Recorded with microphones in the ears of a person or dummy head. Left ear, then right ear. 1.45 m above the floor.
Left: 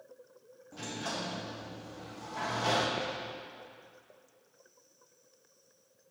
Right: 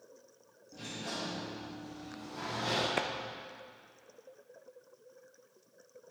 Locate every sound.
0.7 s a sliding door: 45° left (ahead or behind), 1.7 m
3.0 s a clap: 35° right (ahead or behind), 0.7 m